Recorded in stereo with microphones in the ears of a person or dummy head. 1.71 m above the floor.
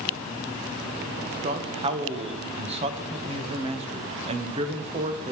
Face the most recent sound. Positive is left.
turn(degrees=-25)  # may be behind; listen again after turning